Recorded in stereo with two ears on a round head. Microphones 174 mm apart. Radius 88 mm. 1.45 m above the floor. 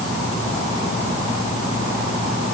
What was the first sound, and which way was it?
Only background noise.